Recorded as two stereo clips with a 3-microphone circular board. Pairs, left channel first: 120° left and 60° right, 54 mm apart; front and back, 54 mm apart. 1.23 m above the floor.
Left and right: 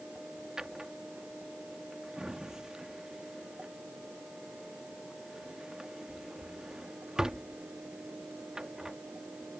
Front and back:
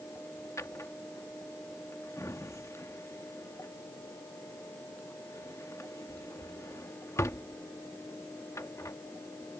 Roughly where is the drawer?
Ahead.